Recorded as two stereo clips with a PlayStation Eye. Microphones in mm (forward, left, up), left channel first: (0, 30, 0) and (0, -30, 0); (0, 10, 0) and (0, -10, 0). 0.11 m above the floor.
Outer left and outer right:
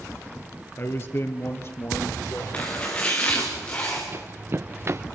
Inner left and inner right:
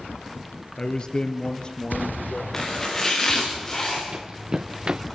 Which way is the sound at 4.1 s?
40° right (ahead or behind).